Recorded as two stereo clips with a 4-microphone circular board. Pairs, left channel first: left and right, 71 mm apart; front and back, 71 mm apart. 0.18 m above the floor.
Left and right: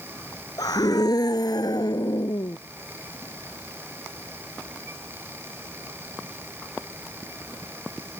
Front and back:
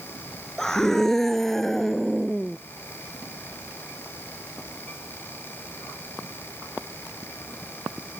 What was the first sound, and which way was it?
A scream, 85° left.